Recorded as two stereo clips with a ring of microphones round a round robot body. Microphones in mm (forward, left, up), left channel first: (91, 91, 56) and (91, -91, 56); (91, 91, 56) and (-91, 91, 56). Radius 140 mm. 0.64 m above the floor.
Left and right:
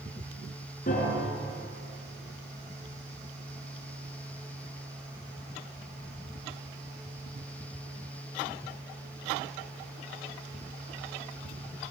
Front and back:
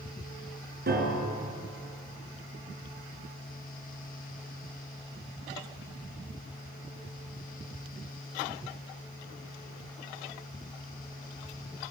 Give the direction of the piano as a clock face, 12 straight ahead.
7 o'clock.